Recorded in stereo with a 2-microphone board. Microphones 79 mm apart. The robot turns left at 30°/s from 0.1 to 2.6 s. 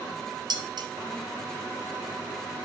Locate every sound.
0.5 s dishes clattering: 60° right (ahead or behind), 0.7 m; by 0.9 s 65° right (ahead or behind), 0.7 m